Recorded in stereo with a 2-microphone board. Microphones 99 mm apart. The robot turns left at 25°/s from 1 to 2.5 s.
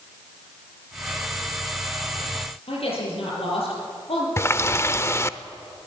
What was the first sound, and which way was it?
A woman speaking, 75° left (ahead or behind).